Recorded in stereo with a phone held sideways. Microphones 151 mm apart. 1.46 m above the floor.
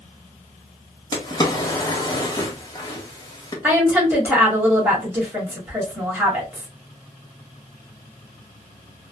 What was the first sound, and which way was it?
A drawer, 25° left (ahead or behind).